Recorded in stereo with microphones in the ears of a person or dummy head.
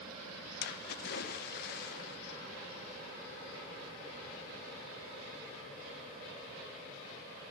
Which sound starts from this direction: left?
A splash, at 0.6 s.